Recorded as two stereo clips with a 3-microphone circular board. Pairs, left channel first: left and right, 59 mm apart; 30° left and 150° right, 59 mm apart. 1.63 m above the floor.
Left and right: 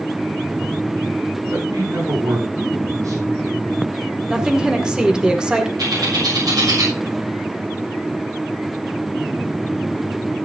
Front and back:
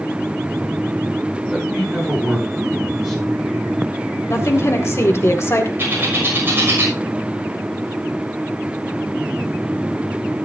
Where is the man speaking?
70° right, 8 m.